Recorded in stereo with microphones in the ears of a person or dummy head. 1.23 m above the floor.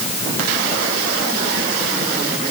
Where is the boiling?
No boiling in this recording.